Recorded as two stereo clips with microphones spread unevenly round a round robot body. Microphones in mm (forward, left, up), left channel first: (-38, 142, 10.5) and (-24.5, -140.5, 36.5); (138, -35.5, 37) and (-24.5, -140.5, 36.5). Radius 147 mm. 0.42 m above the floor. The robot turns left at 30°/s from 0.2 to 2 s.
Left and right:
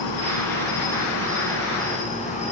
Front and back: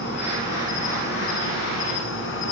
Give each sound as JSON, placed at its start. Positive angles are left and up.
{"t": 0.0, "sound": "an insect", "azimuth_deg": 80, "distance_m": 4.5}